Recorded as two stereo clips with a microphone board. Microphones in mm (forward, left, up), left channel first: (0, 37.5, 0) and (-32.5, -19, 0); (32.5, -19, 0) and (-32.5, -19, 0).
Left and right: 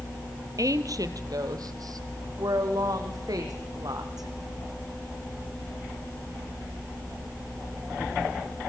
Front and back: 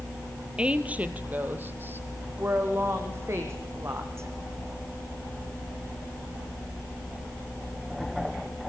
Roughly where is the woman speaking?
Right.